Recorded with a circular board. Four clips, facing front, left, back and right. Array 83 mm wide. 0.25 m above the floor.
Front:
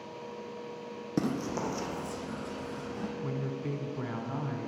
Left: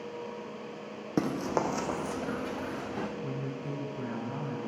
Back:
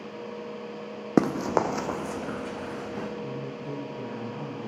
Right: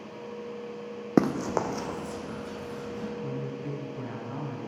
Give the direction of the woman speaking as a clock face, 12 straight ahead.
12 o'clock.